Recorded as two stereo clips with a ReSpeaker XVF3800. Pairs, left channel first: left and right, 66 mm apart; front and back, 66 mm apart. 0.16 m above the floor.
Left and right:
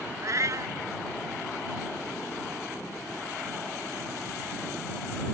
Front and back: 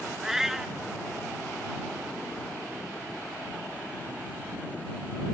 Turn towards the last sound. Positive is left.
turn(degrees=-95)